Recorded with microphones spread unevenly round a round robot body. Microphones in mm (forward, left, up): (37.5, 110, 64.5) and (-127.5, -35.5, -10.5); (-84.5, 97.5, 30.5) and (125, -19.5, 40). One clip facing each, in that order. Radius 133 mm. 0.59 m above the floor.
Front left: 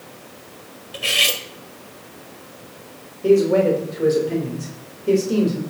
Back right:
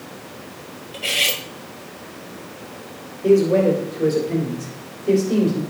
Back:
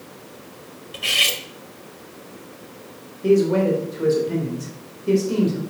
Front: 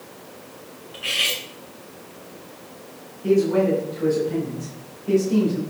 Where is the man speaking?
135° left, 3 m.